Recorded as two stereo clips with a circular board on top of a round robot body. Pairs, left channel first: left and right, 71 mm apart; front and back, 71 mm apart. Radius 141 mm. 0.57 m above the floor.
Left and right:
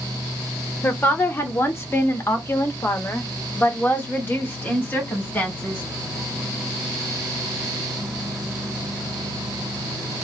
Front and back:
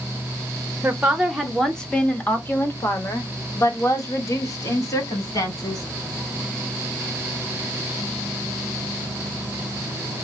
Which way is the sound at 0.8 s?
125° left.